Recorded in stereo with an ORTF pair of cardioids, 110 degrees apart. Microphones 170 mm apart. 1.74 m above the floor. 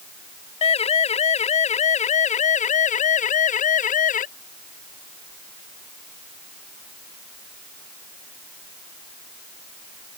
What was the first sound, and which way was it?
A siren, 40° left.